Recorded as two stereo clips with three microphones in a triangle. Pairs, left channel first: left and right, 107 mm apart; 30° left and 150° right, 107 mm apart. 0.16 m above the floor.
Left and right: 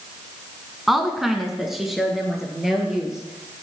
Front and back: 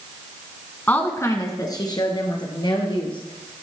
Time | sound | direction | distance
0.9 | a woman speaking | 5° right | 1.2 m